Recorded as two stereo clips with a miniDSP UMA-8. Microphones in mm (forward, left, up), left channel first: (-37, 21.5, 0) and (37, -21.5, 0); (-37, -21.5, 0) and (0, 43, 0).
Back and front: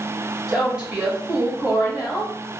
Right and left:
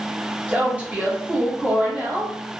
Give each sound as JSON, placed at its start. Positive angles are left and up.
{"t": 0.5, "sound": "a woman speaking", "azimuth_deg": 35, "distance_m": 1.0}